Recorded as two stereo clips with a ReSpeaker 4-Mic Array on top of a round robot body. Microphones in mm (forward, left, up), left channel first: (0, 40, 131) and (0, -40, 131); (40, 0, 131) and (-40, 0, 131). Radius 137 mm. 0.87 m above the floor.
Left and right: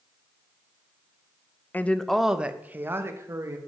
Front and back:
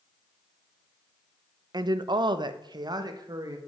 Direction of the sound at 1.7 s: 155° left.